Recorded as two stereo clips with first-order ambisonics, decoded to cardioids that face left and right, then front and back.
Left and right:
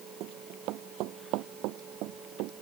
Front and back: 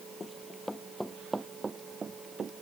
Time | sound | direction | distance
0.2 | running footsteps | 70° right | ?